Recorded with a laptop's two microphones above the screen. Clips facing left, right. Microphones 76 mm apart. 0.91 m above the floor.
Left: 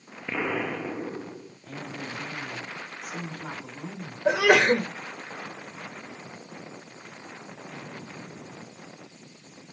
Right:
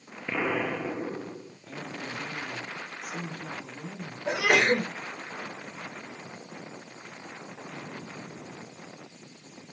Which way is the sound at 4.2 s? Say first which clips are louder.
Left 4 dB; 65° left (ahead or behind).